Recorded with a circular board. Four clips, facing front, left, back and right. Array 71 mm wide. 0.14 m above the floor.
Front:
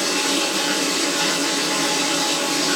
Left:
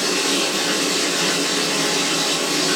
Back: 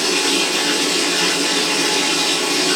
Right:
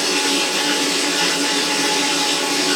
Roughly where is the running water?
Behind right.